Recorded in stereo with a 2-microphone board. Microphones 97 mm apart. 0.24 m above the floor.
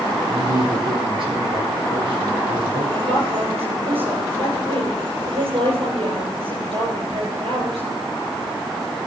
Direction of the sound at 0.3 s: 60° right (ahead or behind).